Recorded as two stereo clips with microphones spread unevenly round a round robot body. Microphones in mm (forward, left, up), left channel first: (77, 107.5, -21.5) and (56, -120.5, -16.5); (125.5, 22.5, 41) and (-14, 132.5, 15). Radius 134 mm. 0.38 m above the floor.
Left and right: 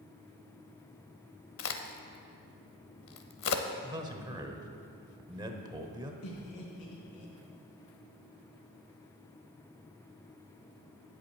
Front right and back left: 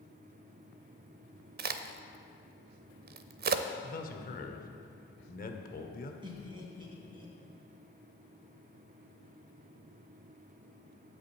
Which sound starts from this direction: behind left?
A crack, at 1.6 s.